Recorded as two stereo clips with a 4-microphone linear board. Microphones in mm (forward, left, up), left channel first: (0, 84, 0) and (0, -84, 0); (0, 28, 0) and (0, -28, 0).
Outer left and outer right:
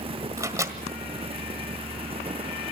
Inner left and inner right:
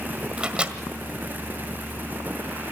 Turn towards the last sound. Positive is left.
turn(degrees=-20)  # may be behind; listen again after turning